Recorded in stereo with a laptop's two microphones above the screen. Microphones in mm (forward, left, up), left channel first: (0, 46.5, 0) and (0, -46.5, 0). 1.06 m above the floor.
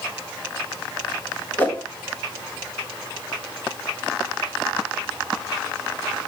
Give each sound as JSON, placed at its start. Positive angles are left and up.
{"t": 1.6, "sound": "a whoosh", "side_deg": 20, "distance_m": 1.3}